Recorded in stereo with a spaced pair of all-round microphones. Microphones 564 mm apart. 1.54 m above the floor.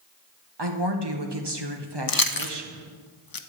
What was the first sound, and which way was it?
A woman speaking, 50° right (ahead or behind).